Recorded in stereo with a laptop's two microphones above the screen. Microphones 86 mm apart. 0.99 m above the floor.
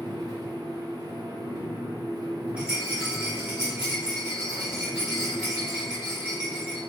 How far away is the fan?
About 0.9 m.